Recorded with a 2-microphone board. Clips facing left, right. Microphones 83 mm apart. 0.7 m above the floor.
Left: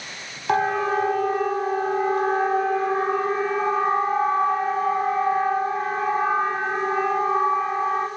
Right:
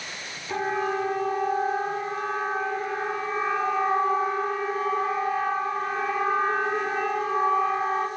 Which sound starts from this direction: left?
A siren, at 0.5 s.